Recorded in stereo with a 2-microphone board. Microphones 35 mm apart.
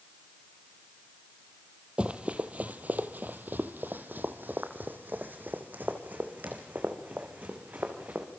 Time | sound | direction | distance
2.0 | running footsteps | 35° right (ahead or behind) | 1.7 m